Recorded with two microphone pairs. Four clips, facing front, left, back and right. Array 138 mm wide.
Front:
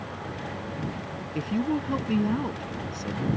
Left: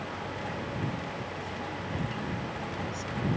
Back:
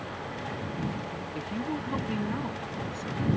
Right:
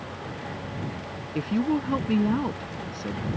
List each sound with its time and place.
1.4 s a woman speaking: 70° right